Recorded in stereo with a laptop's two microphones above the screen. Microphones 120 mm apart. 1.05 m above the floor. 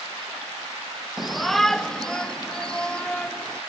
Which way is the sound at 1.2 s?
Centre (ahead or behind).